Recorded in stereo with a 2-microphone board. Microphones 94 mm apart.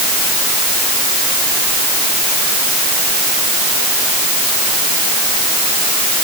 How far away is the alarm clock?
I don't hear an alarm clock.